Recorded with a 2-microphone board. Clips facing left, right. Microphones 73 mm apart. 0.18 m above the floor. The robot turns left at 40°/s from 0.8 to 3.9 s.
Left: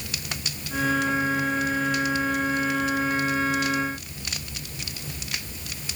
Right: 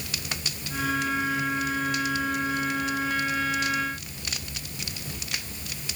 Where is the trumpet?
I don't hear a trumpet.